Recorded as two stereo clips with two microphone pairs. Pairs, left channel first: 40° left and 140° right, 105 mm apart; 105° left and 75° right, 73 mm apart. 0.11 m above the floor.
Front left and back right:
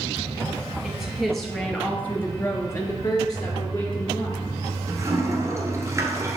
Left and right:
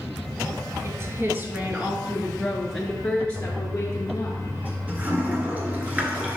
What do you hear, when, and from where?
0.8 s a woman speaking: 55° right, 1.4 m; by 4.3 s 70° left, 1.7 m
3.4 s a toilet flushing: 120° right, 1.4 m